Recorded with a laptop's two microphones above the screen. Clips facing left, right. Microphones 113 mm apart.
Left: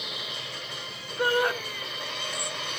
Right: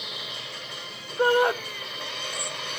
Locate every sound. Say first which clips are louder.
1.2 s a shout: right 4 dB; 25° right (ahead or behind), 0.8 m